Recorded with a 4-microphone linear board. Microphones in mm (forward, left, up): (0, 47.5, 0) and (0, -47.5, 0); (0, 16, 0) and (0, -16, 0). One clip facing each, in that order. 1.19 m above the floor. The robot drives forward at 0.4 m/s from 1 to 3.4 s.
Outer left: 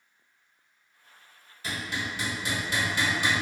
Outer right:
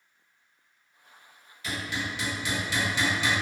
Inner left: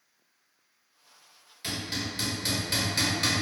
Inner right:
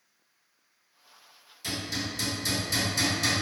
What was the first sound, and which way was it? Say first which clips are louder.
Hammering: outer right 1 dB, even; 35° left (ahead or behind).